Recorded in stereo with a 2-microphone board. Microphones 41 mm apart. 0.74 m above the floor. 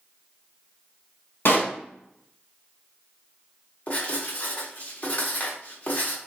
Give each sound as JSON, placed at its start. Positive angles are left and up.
{"t": 1.4, "sound": "a pop", "side_deg": 60, "distance_m": 1.2}
{"t": 3.9, "sound": "writing", "side_deg": 40, "distance_m": 1.0}